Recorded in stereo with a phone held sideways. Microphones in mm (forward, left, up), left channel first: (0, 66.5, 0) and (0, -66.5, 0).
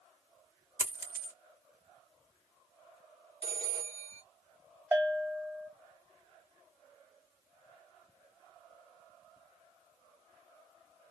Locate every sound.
0.8 s a dropped coin: 20° right (ahead or behind), 1.0 m
3.4 s a phone ringing: 45° right (ahead or behind), 1.5 m
4.9 s a bell: 15° right (ahead or behind), 1.5 m